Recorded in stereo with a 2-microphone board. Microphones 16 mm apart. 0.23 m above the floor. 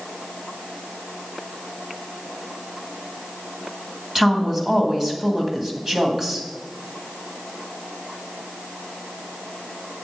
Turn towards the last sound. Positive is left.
turn(degrees=-25)  # may be behind; listen again after turning